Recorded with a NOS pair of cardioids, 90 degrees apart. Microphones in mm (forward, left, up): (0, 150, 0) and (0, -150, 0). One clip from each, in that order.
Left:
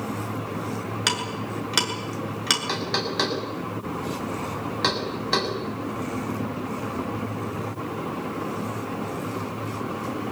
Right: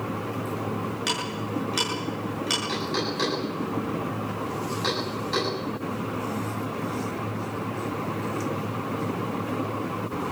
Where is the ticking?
55° left, 7.5 m.